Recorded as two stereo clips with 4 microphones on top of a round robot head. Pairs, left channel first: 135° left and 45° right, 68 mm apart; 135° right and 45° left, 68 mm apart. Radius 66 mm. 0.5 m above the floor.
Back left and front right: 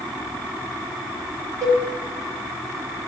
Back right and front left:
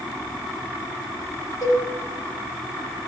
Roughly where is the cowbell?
Right.